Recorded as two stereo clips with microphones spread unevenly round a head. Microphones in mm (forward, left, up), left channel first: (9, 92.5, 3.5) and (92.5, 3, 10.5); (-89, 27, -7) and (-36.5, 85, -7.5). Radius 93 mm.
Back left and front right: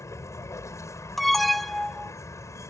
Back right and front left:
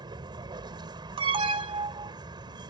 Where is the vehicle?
65° left.